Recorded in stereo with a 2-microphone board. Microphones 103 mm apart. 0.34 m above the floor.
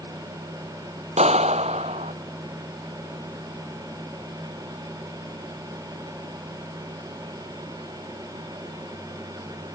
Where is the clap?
80° right.